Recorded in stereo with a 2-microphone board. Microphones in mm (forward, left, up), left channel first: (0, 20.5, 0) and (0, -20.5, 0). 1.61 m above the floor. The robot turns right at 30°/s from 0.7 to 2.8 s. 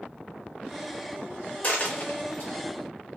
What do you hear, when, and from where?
1.6 s a dropped coin: 30° left (ahead or behind), 1.2 m; by 2.5 s 40° left (ahead or behind), 1.2 m